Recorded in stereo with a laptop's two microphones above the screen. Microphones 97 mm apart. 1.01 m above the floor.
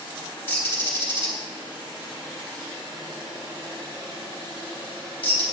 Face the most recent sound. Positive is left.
turn(degrees=20)  # may be behind; listen again after turning